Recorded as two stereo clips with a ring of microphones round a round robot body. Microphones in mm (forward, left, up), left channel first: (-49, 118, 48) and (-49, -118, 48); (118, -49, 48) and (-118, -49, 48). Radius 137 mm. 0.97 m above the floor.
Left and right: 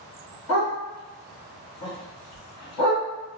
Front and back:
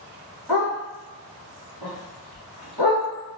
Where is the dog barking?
90° left, 1.7 m.